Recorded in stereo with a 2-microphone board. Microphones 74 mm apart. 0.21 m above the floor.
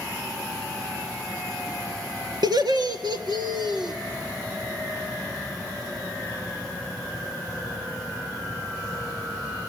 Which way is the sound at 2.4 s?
70° right (ahead or behind).